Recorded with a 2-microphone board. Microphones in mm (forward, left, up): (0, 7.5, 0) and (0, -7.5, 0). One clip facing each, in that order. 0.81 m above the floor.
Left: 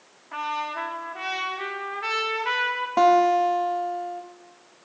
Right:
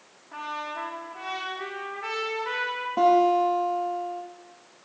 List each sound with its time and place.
0.3 s a trumpet: 45° left (ahead or behind), 1.2 m
3.0 s a guitar: 45° left (ahead or behind), 1.0 m